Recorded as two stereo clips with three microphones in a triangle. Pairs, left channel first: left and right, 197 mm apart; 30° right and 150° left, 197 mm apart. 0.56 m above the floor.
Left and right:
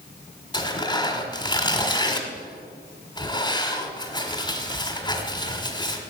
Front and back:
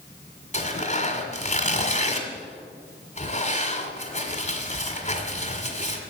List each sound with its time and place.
0.5 s tearing paper: 20° left, 1.7 m